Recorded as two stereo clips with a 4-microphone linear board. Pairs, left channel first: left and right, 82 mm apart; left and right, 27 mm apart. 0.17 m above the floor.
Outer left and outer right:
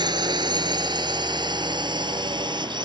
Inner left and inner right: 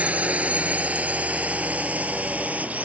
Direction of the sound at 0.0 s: 60° right (ahead or behind).